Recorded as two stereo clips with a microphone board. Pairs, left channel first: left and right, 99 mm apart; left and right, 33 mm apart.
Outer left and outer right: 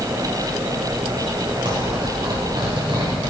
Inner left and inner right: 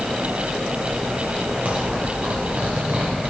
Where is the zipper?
60° right (ahead or behind), 4 m.